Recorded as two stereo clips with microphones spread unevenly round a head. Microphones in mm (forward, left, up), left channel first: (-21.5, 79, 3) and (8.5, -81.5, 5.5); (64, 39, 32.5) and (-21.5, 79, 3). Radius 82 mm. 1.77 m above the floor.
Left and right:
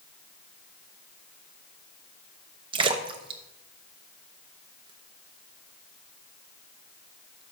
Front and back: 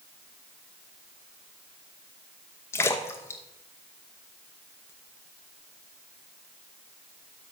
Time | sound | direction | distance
2.7 | a splash | 35° right | 0.7 m